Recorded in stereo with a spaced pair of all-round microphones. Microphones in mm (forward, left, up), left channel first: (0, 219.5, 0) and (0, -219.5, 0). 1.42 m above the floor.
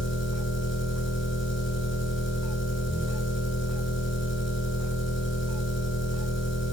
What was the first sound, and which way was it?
An engine running, 25° left (ahead or behind).